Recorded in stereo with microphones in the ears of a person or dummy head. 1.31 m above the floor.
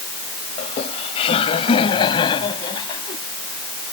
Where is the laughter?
40° left (ahead or behind); by 3.2 s 30° left (ahead or behind).